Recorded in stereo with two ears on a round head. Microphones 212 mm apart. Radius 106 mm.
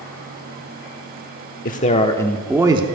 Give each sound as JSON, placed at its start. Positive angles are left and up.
{"t": 1.6, "sound": "a man speaking", "side_deg": 35, "distance_m": 1.2}